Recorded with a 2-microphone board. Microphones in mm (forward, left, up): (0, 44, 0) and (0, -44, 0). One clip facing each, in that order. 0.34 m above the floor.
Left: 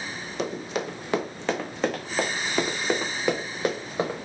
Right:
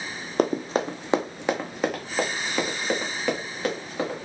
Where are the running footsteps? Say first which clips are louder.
Right 6 dB; 45° right (ahead or behind), 0.8 m; by 4.2 s 15° left (ahead or behind), 2 m.